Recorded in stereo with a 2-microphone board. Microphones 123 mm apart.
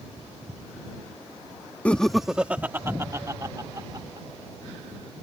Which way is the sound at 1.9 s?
10° left (ahead or behind).